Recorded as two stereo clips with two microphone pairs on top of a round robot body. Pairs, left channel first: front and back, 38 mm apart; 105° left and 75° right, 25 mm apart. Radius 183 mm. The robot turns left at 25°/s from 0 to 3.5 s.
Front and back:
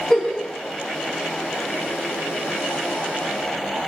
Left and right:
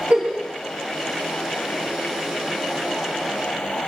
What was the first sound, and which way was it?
A giggle, 75° right.